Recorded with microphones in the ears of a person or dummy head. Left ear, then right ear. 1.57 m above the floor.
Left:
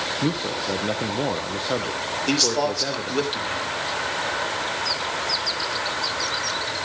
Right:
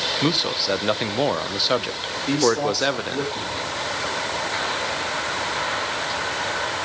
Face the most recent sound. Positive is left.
turn(degrees=60)  # may be behind; listen again after turning